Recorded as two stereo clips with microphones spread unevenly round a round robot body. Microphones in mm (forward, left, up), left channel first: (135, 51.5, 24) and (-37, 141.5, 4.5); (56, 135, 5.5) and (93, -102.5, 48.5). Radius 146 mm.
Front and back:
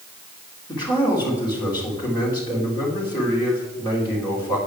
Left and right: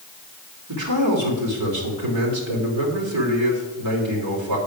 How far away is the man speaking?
About 3 m.